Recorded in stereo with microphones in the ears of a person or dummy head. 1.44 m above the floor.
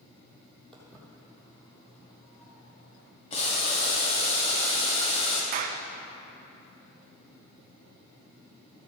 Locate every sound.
0.7 s footsteps: 5° left (ahead or behind), 2.5 m; by 3.1 s 55° left (ahead or behind), 2.5 m
3.3 s boiling: 40° left (ahead or behind), 2 m
5.5 s a clap: 40° right (ahead or behind), 0.6 m